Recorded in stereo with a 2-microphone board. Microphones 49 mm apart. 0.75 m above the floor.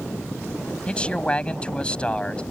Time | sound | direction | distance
0.9 | a man speaking | 20° left (ahead or behind) | ?